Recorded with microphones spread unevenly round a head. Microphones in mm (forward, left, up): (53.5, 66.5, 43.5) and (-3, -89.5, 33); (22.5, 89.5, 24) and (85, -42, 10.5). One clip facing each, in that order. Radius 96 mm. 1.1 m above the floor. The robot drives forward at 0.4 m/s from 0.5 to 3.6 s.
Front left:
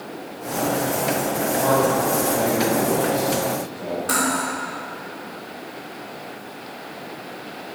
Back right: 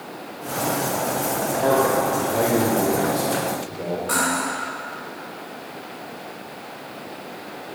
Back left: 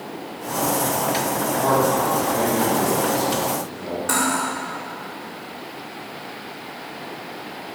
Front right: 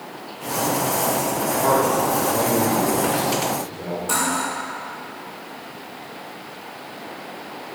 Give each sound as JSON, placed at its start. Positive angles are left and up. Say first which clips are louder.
{"t": 1.6, "sound": "a man speaking", "louder": "back right 1 dB, even", "azimuth_deg": -165, "distance_m": 2.5}
{"t": 4.1, "sound": "cutlery clinking", "louder": "front left 1 dB, back left 2 dB", "azimuth_deg": 110, "distance_m": 2.0}